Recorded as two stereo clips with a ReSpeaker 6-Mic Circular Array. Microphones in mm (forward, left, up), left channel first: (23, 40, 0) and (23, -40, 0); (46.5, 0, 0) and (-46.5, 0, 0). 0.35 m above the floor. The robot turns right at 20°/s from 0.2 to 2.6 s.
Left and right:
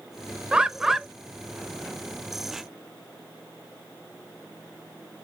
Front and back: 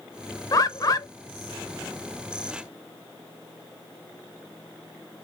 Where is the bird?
15° right, 0.6 m; by 1.1 s 5° right, 0.6 m.